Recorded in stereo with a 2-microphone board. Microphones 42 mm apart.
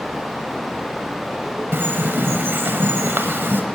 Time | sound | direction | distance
1.7 | a bird | 65° right (ahead or behind) | 1.0 m